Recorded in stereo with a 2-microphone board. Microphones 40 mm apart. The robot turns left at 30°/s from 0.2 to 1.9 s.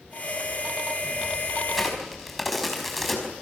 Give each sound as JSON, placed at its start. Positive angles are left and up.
{"t": 1.7, "sound": "a crack", "side_deg": -5, "distance_m": 5.0}